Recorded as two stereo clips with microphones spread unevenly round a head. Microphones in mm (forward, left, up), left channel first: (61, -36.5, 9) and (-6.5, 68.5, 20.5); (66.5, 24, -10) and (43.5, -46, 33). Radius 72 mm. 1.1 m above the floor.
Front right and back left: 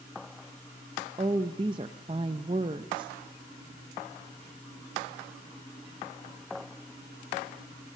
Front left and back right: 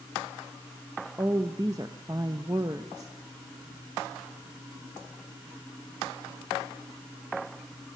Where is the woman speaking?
Straight behind, 0.8 m.